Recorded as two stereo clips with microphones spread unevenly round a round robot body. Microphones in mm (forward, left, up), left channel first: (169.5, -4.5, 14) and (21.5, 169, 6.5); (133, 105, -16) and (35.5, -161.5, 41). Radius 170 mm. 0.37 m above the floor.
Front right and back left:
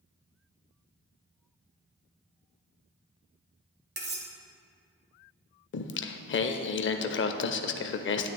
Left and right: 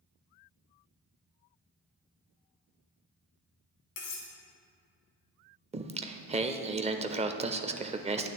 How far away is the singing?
About 0.6 m.